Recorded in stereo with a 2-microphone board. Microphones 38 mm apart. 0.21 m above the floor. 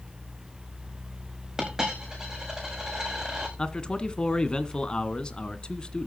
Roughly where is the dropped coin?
Centre.